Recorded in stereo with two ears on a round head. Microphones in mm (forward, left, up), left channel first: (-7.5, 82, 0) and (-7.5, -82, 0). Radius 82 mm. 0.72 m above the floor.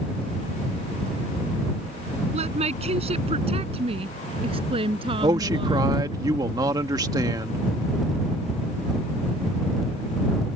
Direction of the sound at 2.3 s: 35° right (ahead or behind).